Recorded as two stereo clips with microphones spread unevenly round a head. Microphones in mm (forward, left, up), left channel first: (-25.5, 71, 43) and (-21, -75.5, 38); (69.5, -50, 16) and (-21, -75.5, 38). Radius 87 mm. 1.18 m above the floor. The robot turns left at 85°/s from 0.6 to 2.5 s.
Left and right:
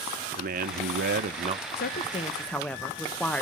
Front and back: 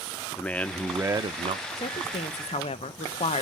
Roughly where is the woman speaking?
Left.